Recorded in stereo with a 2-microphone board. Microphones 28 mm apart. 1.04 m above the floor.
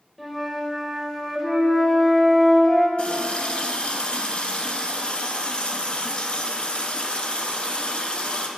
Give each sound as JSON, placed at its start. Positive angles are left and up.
{"t": 0.2, "sound": "a flute", "side_deg": 5, "distance_m": 1.9}
{"t": 3.0, "sound": "a running tap", "side_deg": 40, "distance_m": 0.8}